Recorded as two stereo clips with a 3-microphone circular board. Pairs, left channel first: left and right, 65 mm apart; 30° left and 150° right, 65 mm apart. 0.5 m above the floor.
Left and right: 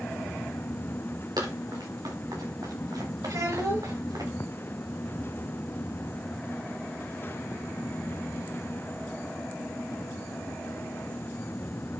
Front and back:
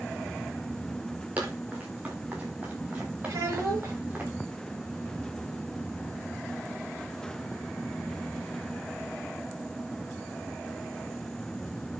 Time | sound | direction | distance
1.4 | running footsteps | 85° right | 6.5 m
3.3 | a child speaking | 105° right | 6.5 m